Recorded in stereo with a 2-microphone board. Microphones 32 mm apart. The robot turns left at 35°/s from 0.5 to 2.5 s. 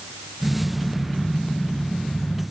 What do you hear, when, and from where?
Only background noise.